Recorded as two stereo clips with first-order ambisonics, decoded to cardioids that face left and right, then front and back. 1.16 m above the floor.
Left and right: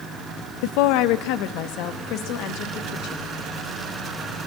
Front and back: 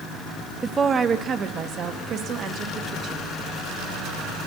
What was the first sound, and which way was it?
A woman speaking, 100° left.